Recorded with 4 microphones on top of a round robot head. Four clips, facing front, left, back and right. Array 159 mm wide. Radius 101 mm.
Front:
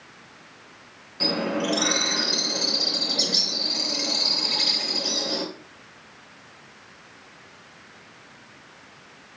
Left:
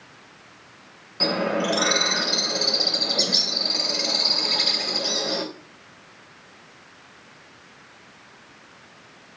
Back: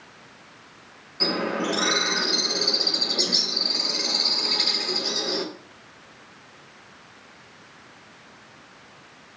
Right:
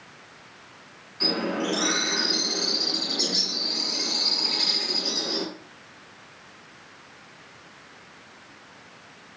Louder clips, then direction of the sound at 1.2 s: Left 4 dB, even; 80° left.